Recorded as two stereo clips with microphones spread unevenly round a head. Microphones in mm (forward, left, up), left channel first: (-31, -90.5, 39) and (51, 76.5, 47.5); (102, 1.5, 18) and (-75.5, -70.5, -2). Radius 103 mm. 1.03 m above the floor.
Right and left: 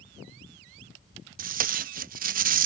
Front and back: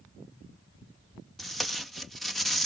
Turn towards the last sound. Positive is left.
turn(degrees=110)